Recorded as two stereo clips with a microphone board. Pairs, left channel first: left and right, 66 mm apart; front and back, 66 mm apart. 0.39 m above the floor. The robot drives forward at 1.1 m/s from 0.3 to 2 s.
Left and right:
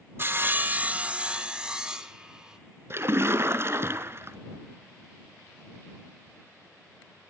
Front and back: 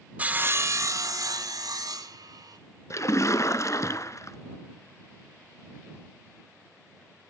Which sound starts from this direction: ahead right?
A splash, at 2.9 s.